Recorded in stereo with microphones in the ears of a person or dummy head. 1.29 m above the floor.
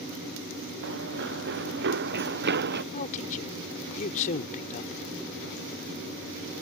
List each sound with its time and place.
0.8 s running footsteps: 60° right (ahead or behind); by 2.8 s 50° right (ahead or behind)
2.9 s a man speaking: 40° left (ahead or behind)